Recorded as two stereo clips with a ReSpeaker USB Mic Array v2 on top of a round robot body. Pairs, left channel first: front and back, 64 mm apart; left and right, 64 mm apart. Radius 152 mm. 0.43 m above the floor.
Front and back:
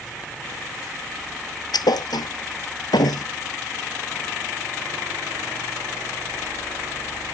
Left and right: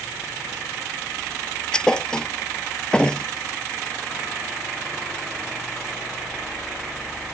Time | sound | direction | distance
1.7 | a thud | 10° left | ?